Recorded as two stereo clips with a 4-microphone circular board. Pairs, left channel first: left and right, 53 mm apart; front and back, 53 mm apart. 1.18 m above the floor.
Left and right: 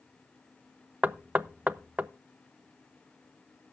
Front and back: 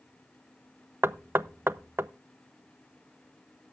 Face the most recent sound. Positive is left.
turn(degrees=-145)